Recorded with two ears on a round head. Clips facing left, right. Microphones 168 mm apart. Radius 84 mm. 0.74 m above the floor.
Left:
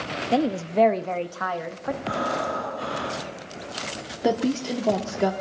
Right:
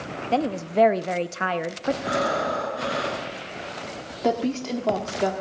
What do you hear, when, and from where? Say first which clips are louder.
0.3 s a woman speaking: left 1 dB; 15° left (ahead or behind), 0.7 m; by 1.9 s 35° right (ahead or behind), 0.8 m
2.0 s breathing: even; 75° right (ahead or behind), 7 m
4.2 s a woman speaking: left 1 dB; 10° left (ahead or behind), 1.3 m